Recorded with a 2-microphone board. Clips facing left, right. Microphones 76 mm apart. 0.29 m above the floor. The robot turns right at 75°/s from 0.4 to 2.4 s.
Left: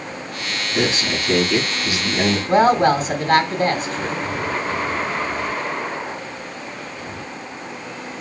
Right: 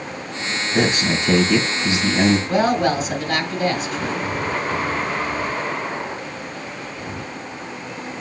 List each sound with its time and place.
0.8 s a man speaking: 125° right, 2.5 m; by 2.4 s straight ahead, 2.5 m
2.5 s a woman speaking: 45° left (ahead or behind), 2.5 m